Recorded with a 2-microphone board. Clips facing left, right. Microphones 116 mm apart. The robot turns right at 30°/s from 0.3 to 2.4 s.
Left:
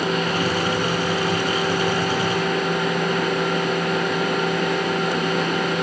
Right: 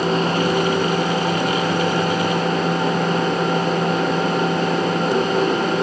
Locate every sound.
Only background noise.